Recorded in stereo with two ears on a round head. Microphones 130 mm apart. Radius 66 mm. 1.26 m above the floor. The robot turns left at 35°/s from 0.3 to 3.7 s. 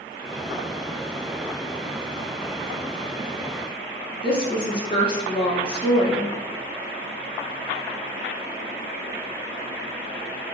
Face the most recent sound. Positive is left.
turn(degrees=35)  # may be behind; listen again after turning